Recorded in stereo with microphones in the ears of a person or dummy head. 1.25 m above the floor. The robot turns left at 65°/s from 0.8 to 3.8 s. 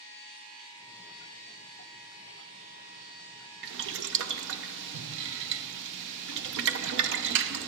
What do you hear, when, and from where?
3.6 s boiling: 55° right (ahead or behind), 0.7 m; by 7.7 s 65° right (ahead or behind), 0.7 m